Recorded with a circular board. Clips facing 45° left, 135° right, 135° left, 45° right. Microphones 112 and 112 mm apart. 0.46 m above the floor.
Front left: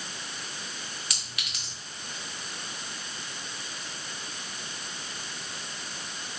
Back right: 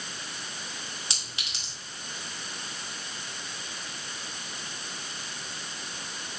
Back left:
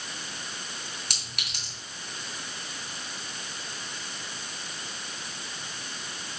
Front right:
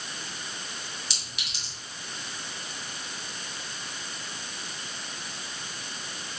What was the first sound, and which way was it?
A clink, 160° left.